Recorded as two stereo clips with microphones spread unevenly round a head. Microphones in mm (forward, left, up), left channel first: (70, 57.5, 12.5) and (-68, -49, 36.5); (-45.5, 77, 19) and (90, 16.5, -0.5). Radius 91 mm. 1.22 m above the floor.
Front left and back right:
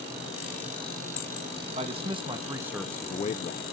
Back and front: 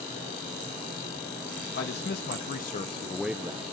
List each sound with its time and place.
1.7 s a man speaking: 160° left, 2.0 m; by 3.6 s 25° left, 1.1 m